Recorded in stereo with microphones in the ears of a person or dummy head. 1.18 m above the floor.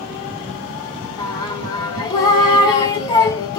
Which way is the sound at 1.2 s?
25° left (ahead or behind).